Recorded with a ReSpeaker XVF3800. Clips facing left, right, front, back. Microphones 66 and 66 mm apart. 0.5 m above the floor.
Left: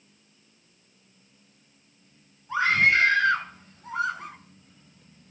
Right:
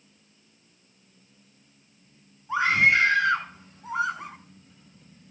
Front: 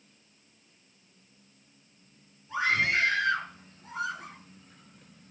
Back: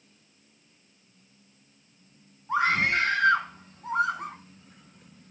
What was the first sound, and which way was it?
A scream, 160° right.